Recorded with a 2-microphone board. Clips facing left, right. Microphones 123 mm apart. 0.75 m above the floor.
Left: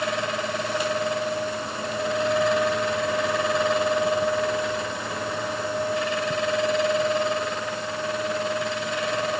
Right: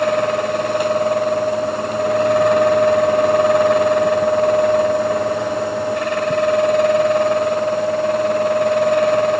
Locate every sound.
Only background noise.